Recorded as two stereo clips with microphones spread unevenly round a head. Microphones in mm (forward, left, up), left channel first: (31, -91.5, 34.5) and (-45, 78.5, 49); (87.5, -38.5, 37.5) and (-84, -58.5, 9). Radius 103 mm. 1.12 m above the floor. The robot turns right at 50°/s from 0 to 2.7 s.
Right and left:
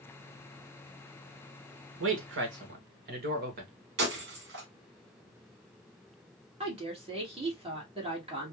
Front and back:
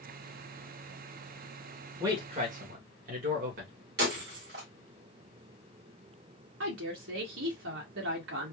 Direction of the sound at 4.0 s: 145° left.